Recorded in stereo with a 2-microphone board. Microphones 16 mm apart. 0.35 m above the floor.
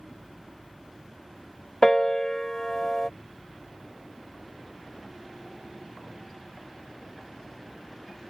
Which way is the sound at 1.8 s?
30° left (ahead or behind).